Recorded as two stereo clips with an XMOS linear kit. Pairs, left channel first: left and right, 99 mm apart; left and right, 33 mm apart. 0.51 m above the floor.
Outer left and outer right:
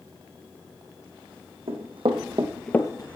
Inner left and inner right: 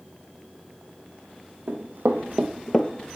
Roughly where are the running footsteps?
Right.